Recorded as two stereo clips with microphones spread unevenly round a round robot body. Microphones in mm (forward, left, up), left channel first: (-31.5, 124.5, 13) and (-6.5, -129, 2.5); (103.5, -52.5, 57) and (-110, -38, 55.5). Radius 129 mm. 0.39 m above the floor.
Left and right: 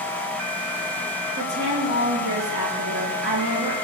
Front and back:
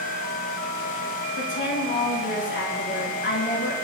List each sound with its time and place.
1.4 s a woman speaking: 35° right, 5 m